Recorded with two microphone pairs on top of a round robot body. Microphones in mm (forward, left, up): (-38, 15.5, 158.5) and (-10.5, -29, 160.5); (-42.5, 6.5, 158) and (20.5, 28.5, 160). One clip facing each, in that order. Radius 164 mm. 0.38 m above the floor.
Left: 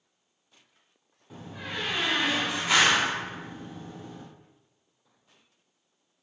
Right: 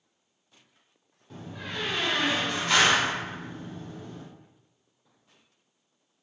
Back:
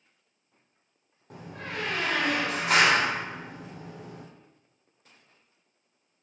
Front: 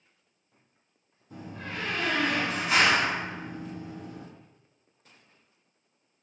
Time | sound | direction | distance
1.3 | a door slam | 160° right | 1.1 m